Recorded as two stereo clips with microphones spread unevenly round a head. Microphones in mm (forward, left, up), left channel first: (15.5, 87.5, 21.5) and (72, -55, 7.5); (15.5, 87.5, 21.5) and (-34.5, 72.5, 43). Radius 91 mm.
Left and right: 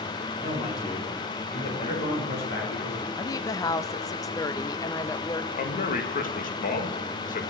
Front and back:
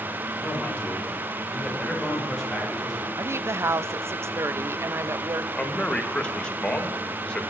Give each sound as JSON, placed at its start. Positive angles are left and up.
{"t": 0.4, "sound": "a man speaking", "azimuth_deg": 80, "distance_m": 6.5}
{"t": 3.2, "sound": "a woman speaking", "azimuth_deg": 165, "distance_m": 0.6}
{"t": 5.5, "sound": "a man speaking", "azimuth_deg": 80, "distance_m": 1.8}